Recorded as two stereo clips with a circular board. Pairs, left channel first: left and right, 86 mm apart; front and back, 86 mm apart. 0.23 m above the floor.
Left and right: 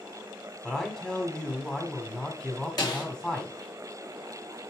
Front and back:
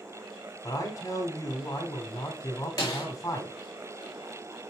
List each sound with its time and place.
0.6 s a man speaking: 10° left, 1.7 m
2.8 s a snare drum: 50° left, 3 m